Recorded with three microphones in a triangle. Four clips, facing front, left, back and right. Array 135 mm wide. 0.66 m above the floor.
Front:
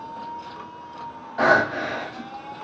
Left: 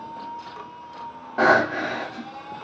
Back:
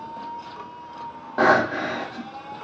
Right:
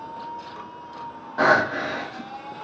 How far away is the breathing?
About 1.0 m.